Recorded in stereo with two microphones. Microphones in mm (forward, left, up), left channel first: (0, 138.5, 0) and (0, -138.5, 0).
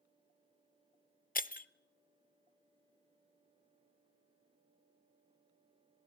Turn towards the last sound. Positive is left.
turn(degrees=35)  # may be behind; listen again after turning